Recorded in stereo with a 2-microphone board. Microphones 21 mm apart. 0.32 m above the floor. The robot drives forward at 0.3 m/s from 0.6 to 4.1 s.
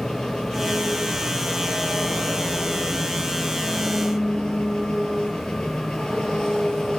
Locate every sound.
0.0 s an engine running: 40° left (ahead or behind), 7 m; by 7.0 s 45° left (ahead or behind), 6 m